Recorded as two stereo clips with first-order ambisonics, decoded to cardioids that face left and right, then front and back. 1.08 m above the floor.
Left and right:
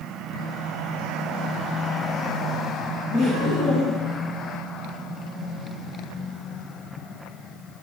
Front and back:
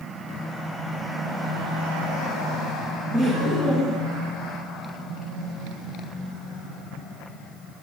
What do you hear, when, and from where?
3.1 s laughter: 120° left, 1.8 m; by 4.2 s 155° left, 0.9 m